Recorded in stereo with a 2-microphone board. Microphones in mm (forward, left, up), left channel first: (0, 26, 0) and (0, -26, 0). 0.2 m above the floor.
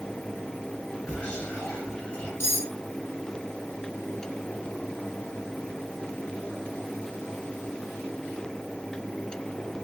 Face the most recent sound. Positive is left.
turn(degrees=55)  # may be behind; listen again after turning